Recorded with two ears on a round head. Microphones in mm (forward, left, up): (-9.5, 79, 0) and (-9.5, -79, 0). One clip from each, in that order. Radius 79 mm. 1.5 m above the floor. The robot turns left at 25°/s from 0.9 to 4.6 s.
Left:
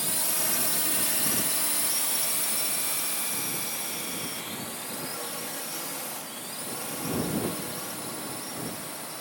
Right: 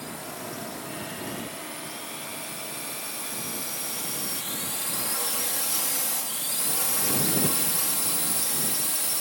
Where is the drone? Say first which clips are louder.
Left 5 dB; 85° left; by 9.2 s 55° right (ahead or behind).